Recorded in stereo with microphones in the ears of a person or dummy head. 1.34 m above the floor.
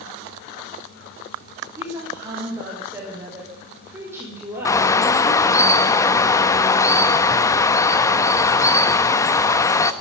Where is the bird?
20° left (ahead or behind), 1.1 m.